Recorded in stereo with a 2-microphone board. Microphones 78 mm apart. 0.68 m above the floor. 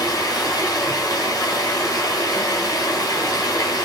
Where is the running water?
55° left (ahead or behind), 4.5 m.